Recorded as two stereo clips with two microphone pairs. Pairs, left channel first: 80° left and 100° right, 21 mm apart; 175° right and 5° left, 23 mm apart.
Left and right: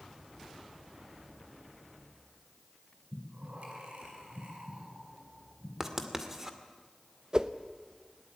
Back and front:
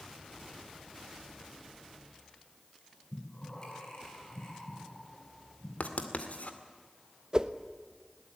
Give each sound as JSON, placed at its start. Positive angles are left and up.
{"t": 3.1, "sound": "breathing", "azimuth_deg": -115, "distance_m": 5.5}
{"t": 5.8, "sound": "writing", "azimuth_deg": -170, "distance_m": 2.0}
{"t": 7.3, "sound": "a whoosh", "azimuth_deg": -55, "distance_m": 1.0}